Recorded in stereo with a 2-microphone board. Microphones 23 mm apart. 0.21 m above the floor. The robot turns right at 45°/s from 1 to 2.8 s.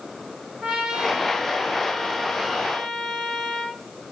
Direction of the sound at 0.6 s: 30° right.